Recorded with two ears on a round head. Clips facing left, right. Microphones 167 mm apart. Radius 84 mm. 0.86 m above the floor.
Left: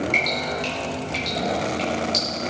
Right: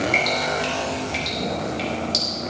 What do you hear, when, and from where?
0.1 s dripping: 5° right (ahead or behind), 5 m